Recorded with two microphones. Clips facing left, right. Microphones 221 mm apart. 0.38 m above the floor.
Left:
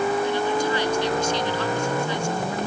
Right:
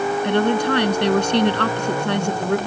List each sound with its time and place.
0.2 s a woman speaking: 65° right (ahead or behind)